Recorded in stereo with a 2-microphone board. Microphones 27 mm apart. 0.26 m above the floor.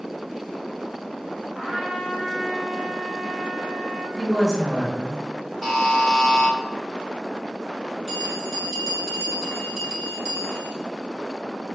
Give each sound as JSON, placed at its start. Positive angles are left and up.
{"t": 1.6, "sound": "a trumpet", "side_deg": -10, "distance_m": 1.7}
{"t": 4.2, "sound": "a woman speaking", "side_deg": 5, "distance_m": 2.0}
{"t": 5.6, "sound": "a buzzer", "side_deg": 10, "distance_m": 1.3}
{"t": 8.1, "sound": "a bell", "side_deg": 20, "distance_m": 1.7}